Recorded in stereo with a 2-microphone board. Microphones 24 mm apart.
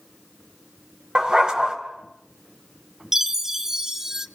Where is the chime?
20° right (ahead or behind), 0.8 m.